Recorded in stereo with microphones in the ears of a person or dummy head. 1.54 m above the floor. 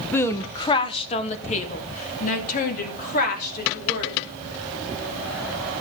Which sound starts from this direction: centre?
A woman speaking, at 0.1 s.